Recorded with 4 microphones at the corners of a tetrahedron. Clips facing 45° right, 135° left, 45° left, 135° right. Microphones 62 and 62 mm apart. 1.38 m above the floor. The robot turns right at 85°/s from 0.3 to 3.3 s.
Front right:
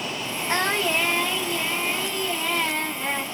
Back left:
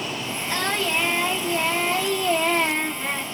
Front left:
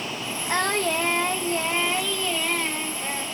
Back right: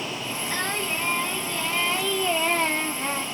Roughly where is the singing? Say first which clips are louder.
Front right 2 dB, front left 6 dB; ahead.